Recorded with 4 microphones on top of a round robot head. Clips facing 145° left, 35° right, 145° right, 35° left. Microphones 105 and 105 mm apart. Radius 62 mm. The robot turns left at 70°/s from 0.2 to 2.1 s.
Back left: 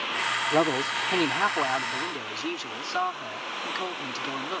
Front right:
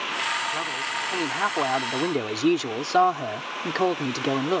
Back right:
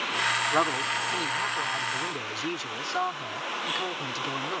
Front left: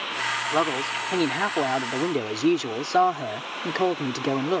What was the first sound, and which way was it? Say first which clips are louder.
A man speaking: back left 6 dB, front left 4 dB; 115° left.